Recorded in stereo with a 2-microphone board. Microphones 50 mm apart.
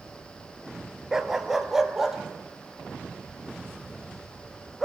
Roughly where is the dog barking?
Centre.